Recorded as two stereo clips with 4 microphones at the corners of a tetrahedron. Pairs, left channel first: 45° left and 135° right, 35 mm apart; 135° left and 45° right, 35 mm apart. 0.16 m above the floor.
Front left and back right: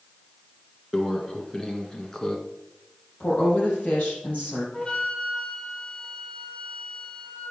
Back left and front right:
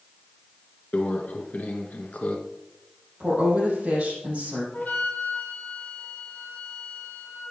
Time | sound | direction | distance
0.9 | a microwave | 110° left | 1.3 m
3.2 | a woman speaking | straight ahead | 6 m
4.7 | a flute | 105° left | 2.5 m